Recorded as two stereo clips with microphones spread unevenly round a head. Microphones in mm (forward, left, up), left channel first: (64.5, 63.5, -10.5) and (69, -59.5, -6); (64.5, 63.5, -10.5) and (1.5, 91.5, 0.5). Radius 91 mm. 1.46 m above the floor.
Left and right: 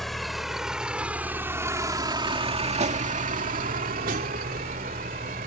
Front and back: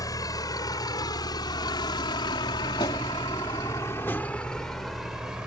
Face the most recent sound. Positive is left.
turn(degrees=-120)